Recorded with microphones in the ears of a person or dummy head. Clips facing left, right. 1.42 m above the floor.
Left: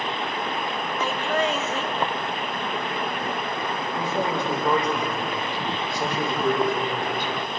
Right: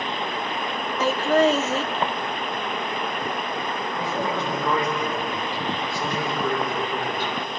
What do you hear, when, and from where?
1.0 s laughter: 30° right (ahead or behind), 0.6 m
3.9 s a man speaking: 20° left (ahead or behind), 9 m